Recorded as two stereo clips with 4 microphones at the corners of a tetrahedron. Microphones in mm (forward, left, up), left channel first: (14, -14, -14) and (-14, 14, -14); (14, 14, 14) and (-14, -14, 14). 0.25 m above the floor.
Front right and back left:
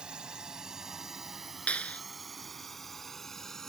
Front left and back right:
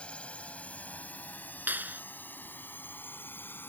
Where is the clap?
100° right.